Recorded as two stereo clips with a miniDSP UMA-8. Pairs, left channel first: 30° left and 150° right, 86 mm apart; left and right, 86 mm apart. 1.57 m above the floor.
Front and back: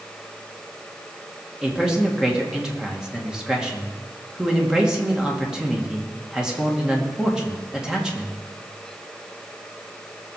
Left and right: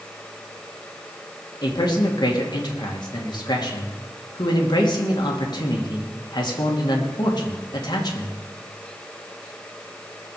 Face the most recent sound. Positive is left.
turn(degrees=130)